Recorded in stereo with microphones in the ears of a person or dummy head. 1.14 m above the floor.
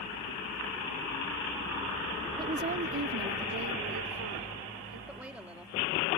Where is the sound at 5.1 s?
5° right (ahead or behind).